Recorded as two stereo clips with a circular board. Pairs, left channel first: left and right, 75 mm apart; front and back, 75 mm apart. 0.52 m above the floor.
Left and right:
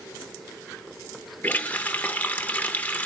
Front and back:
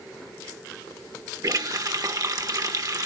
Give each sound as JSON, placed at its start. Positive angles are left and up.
{"t": 1.4, "sound": "a running tap", "azimuth_deg": 155, "distance_m": 0.8}